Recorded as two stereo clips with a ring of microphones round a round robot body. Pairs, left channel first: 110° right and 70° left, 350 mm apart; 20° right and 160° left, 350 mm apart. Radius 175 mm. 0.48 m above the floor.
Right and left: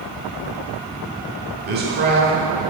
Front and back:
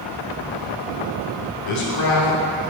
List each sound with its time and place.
1.7 s a man speaking: 10° left, 1.4 m